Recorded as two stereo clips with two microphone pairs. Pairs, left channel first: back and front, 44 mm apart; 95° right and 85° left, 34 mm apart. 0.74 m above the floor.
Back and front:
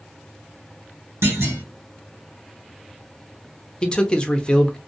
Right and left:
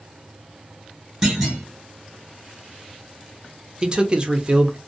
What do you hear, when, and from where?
1.2 s a clunk: straight ahead, 1.5 m
3.8 s a man speaking: 120° left, 0.6 m